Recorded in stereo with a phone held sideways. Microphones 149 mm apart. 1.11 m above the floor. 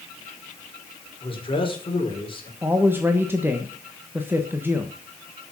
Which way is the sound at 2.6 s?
15° right (ahead or behind).